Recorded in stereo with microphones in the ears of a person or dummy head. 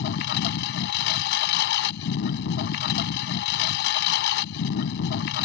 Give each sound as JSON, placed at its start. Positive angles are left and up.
{"t": 0.0, "sound": "a lawn mower", "side_deg": 60}